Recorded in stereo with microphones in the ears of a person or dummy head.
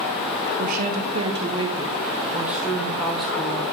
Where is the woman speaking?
45° right (ahead or behind), 0.9 m; by 3.6 s 15° left (ahead or behind), 2.0 m.